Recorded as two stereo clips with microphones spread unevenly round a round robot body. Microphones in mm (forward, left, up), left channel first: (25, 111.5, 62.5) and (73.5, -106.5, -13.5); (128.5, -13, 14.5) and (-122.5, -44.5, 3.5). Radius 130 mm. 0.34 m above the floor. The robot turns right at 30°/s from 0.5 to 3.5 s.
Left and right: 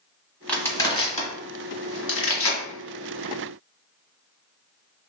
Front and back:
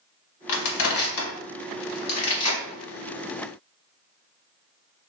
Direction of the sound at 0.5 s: 15° left.